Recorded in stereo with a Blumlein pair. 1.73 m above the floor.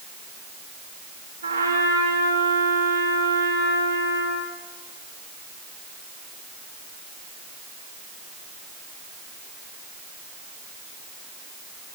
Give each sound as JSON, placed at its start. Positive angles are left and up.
{"t": 1.4, "sound": "a trumpet", "azimuth_deg": -65, "distance_m": 3.5}